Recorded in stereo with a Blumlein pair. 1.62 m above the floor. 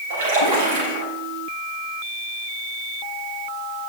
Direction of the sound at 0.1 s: 55° right.